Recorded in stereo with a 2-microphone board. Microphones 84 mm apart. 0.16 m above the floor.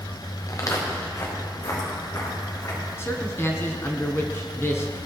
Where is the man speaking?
30° left (ahead or behind), 1.3 m.